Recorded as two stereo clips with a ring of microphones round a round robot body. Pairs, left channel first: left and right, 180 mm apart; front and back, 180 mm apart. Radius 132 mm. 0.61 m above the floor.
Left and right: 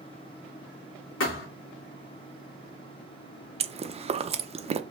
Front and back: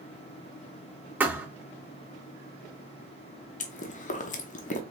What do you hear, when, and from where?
1.2 s a thud: 100° left, 2.5 m
3.6 s chewing: 40° right, 0.7 m